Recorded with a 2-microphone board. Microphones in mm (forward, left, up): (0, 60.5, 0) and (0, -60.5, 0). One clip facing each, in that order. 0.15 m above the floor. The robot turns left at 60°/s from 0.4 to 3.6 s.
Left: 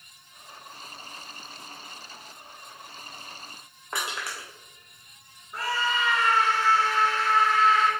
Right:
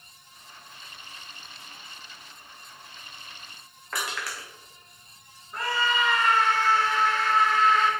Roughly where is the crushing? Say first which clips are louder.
Even; left.